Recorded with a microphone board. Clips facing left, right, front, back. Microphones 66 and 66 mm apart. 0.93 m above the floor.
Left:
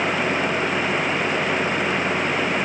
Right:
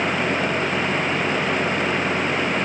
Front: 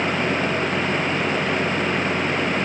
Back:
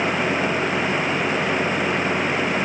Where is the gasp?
No gasp in this recording.